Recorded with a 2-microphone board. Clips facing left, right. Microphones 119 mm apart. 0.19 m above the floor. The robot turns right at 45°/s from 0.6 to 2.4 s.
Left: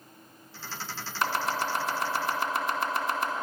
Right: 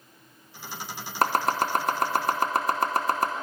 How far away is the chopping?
About 0.8 m.